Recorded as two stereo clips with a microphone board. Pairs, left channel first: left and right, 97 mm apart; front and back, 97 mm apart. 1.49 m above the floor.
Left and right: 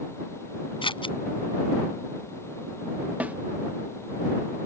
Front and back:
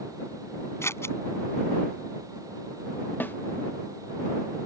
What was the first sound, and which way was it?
Scissors, 60° left.